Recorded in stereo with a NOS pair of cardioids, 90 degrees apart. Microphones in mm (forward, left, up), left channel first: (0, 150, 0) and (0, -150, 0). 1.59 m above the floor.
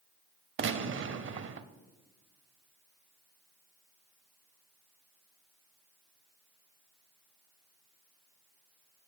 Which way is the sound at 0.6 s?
45° right.